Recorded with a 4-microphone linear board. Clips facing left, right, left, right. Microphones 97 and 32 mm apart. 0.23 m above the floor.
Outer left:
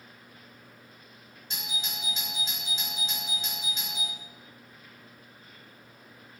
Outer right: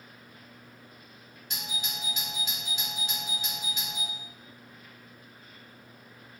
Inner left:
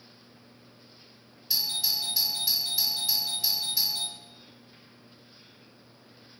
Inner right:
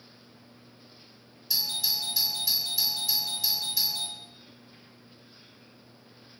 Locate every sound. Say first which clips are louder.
1.5 s a doorbell: even, even; 25° left (ahead or behind), 1.8 m